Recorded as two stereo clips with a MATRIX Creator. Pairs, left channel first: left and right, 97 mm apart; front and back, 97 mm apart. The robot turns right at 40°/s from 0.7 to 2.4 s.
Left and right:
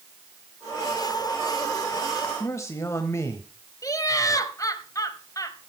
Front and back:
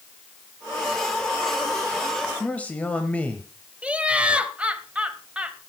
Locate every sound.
2.4 s a man speaking: 65° left, 1.1 m
3.8 s laughter: 110° left, 1.2 m